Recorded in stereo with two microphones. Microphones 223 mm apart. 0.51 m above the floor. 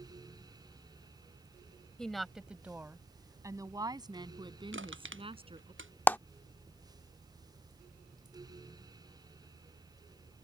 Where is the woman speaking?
5° left (ahead or behind); by 5.7 s 25° right (ahead or behind).